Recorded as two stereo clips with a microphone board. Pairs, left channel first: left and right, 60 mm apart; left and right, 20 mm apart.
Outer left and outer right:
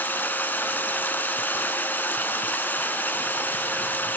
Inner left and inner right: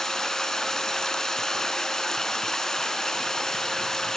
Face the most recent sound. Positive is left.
turn(degrees=30)  # may be behind; listen again after turning